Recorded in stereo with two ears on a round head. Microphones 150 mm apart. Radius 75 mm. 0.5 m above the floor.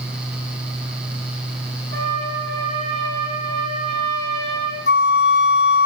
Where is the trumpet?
80° right, 7 m.